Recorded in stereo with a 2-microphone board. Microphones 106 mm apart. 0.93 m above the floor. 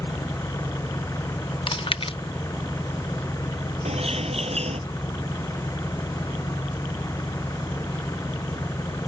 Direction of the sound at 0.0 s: 30° left (ahead or behind).